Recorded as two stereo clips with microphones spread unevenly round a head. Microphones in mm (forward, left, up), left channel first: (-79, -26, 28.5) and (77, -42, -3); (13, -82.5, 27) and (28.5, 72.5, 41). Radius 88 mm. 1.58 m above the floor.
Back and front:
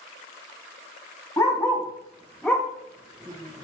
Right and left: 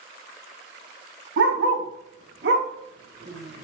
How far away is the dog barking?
About 5 m.